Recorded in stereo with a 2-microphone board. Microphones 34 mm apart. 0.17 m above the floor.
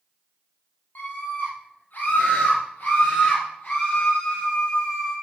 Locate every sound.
0.9 s a scream: 60° left (ahead or behind), 5.5 m; by 5.1 s 40° left (ahead or behind), 5.5 m